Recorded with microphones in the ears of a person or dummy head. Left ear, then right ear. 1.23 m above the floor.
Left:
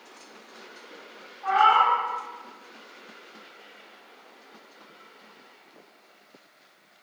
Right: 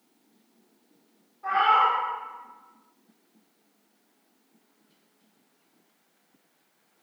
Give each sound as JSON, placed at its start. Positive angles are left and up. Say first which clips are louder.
{"t": 1.4, "sound": "a cat meowing", "louder": "left 2 dB", "side_deg": 30, "distance_m": 1.4}